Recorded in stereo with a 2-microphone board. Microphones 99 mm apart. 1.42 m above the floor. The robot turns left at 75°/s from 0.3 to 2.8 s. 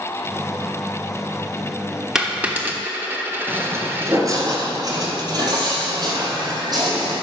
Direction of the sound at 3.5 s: 20° right (ahead or behind).